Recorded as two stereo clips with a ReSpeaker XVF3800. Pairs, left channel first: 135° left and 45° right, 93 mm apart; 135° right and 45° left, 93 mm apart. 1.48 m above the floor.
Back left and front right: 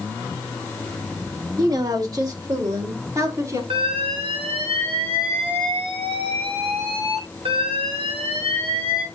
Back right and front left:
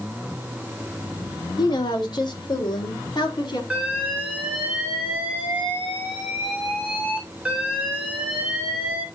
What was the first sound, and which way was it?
A woman speaking, 95° right.